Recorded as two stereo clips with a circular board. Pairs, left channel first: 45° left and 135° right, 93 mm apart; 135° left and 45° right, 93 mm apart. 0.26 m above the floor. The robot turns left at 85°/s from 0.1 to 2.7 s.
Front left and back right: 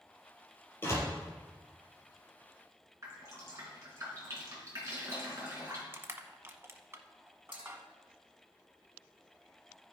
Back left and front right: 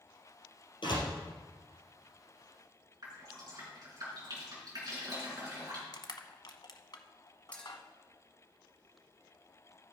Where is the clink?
150° right, 3 m.